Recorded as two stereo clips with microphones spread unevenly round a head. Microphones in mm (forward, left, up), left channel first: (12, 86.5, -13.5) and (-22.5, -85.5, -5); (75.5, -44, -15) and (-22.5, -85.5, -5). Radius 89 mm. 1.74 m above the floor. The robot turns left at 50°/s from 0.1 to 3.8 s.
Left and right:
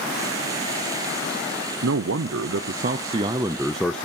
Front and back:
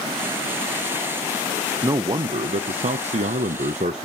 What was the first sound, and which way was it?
A man speaking, 95° right.